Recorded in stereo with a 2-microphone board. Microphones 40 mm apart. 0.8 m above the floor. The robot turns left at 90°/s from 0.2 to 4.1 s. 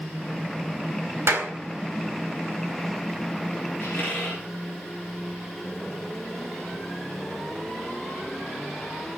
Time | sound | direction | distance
1.3 | a clap | 85° right | 3 m
3.8 | a squeak | 60° left (ahead or behind) | 8 m